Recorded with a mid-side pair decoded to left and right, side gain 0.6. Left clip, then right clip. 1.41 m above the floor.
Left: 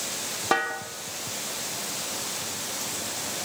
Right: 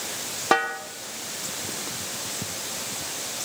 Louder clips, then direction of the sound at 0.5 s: Right 3 dB; 20° right.